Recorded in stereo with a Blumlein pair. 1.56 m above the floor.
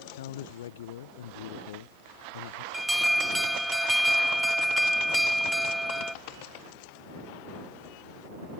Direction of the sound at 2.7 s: 5° right.